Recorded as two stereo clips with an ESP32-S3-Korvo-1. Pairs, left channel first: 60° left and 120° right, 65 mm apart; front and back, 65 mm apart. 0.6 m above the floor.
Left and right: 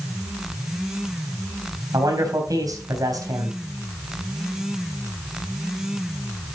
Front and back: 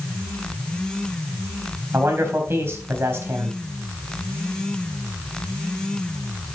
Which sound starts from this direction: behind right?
A man speaking, at 1.9 s.